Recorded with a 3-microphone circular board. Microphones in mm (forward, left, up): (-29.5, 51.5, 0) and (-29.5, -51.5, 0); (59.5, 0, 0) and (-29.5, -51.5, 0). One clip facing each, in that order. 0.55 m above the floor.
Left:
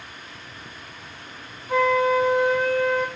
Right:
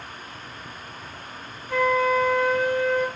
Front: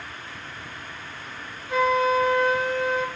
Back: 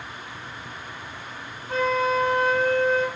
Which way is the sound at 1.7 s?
160° left.